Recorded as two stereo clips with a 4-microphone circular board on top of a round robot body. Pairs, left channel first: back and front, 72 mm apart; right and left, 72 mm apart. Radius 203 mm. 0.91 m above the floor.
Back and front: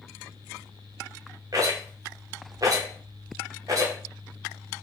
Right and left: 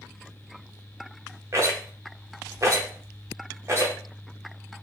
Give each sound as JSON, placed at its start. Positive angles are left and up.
{"t": 1.5, "sound": "a rattle", "azimuth_deg": 40, "distance_m": 0.6}